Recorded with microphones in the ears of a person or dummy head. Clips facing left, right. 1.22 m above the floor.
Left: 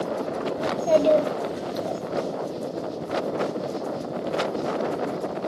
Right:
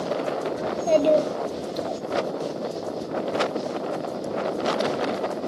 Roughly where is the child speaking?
Centre.